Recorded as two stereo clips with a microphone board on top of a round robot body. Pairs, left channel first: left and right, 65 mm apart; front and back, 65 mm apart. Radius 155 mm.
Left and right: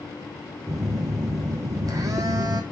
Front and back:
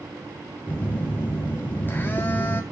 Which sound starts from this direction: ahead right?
A phone buzzing, at 0.7 s.